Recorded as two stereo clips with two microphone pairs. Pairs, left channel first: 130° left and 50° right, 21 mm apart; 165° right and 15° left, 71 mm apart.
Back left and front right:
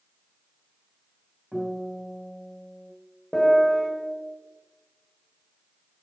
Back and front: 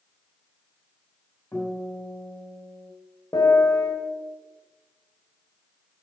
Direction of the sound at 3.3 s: 170° right.